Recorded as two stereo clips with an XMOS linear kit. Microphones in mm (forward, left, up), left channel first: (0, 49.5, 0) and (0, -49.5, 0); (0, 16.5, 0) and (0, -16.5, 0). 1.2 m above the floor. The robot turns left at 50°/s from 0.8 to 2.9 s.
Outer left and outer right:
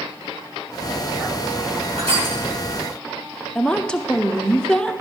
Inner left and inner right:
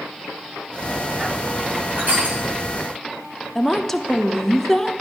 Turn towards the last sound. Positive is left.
turn(degrees=10)  # may be behind; listen again after turning